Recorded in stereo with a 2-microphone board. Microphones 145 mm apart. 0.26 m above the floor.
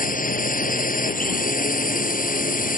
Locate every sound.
0.0 s a drone: 75° left (ahead or behind)